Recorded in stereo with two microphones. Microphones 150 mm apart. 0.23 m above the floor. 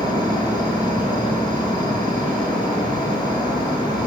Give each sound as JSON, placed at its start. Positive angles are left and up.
{"t": 0.0, "sound": "an insect", "side_deg": -65, "distance_m": 6.0}